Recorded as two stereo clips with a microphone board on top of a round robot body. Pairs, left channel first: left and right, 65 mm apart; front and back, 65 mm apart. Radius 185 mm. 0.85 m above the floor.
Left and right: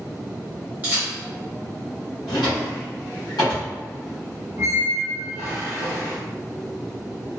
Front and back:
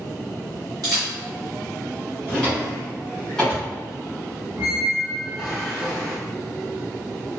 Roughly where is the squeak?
Behind right.